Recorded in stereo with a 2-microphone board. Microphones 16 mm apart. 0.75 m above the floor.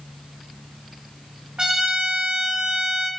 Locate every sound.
1.6 s a trumpet: 60° right (ahead or behind), 0.9 m